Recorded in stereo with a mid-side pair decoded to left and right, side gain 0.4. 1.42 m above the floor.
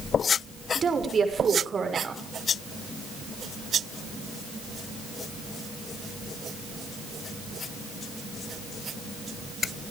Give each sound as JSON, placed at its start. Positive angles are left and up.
{"t": 0.8, "sound": "a woman speaking", "azimuth_deg": -45, "distance_m": 6.0}